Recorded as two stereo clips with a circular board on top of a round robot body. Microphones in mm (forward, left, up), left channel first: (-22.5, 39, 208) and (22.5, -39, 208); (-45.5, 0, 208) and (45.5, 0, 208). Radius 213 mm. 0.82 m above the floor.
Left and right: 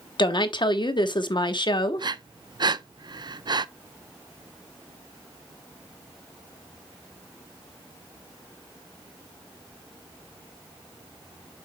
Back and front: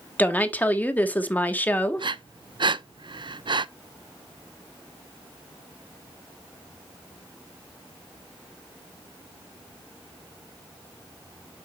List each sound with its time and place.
0.2 s a woman speaking: 110° left, 1.5 m
2.0 s breathing: 25° right, 0.6 m